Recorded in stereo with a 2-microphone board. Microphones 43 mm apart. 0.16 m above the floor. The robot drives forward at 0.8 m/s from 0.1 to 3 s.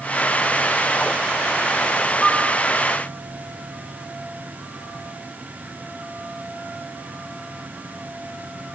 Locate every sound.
2.2 s a piano: 20° left (ahead or behind), 1.2 m; by 2.5 s 25° left (ahead or behind), 1.1 m